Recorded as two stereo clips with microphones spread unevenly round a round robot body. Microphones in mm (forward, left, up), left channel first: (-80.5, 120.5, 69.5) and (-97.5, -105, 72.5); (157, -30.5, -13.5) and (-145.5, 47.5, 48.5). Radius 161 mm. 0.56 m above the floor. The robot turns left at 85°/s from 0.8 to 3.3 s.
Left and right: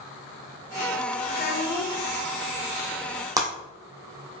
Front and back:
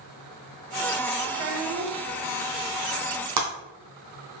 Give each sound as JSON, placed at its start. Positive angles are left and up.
{"t": 1.3, "sound": "a child speaking", "azimuth_deg": 140, "distance_m": 1.0}
{"t": 3.4, "sound": "breaking glass", "azimuth_deg": -170, "distance_m": 1.5}